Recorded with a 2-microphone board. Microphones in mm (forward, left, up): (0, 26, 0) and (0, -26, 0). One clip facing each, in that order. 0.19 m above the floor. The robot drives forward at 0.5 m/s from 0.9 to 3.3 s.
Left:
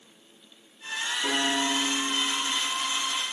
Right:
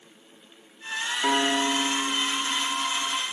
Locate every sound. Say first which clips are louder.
1.2 s a piano: right 4 dB; 40° right (ahead or behind), 5 m; by 3.2 s 50° right (ahead or behind), 4.5 m